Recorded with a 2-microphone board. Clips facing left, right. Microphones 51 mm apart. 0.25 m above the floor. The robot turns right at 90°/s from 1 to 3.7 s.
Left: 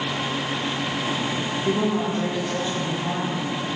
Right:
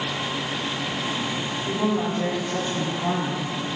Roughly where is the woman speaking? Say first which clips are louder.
Left 1 dB; behind left.